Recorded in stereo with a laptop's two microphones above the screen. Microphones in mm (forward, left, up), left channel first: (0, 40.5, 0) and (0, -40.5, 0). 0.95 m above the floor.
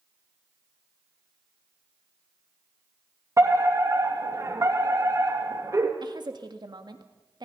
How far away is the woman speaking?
About 1.9 m.